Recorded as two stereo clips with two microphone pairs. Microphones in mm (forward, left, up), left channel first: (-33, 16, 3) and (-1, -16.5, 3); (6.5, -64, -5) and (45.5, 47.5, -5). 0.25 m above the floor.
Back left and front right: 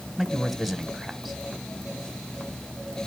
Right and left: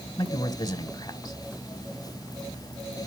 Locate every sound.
0.2 s a man speaking: 135° right, 1.3 m